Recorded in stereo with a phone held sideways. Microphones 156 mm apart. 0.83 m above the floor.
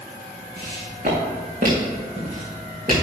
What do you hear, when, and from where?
0.6 s footsteps: 70° right (ahead or behind), 4.5 m; by 3.0 s 55° right (ahead or behind), 6 m